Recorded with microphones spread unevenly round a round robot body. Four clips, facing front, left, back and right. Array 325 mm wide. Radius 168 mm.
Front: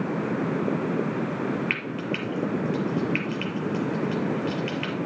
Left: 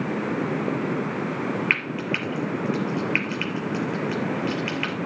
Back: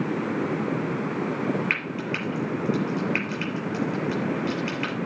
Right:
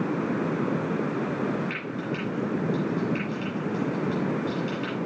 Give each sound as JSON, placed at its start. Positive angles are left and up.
{"t": 1.7, "sound": "frying", "azimuth_deg": 110, "distance_m": 6.0}